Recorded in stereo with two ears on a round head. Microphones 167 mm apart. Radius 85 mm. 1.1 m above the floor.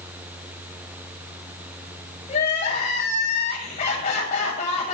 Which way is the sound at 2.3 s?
35° left (ahead or behind).